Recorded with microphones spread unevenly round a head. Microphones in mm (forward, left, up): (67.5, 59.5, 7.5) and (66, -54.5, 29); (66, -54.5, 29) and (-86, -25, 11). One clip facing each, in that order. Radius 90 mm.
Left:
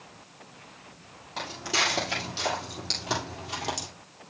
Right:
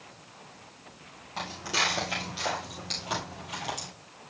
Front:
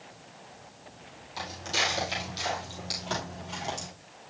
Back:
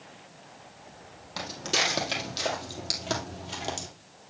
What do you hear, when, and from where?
1.4 s footsteps: 175° left, 2.5 m; by 3.9 s 130° left, 1.7 m